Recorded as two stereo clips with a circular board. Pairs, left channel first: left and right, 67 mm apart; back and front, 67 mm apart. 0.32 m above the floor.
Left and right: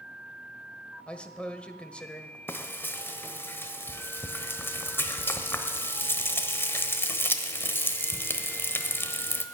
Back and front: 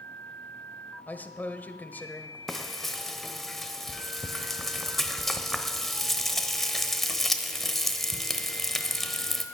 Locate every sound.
1.1 s a man speaking: 145° left, 1.2 m
2.5 s frying: 95° left, 1.0 m